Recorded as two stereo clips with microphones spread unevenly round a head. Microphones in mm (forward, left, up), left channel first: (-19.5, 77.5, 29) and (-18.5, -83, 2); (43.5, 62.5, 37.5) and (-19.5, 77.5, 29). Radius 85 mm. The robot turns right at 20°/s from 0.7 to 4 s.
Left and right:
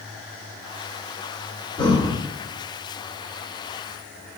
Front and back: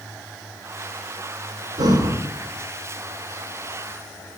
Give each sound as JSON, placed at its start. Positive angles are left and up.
{"t": 1.8, "sound": "breathing", "azimuth_deg": 145, "distance_m": 2.5}